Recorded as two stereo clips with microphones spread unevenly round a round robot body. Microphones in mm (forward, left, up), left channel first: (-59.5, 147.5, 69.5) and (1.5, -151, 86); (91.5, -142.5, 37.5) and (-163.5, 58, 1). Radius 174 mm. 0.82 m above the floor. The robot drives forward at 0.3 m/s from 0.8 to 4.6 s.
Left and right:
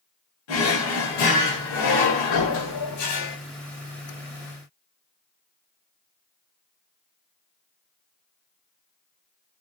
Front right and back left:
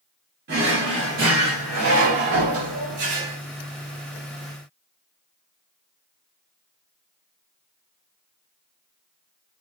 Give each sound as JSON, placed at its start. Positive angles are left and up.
{"t": 0.5, "sound": "a drawer", "azimuth_deg": 75, "distance_m": 1.0}